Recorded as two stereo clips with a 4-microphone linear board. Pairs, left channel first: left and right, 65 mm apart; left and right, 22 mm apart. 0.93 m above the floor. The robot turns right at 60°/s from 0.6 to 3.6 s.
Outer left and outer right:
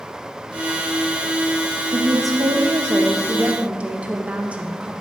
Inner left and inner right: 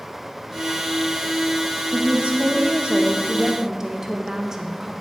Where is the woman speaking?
120° right, 0.6 m; by 4.9 s 20° right, 0.6 m.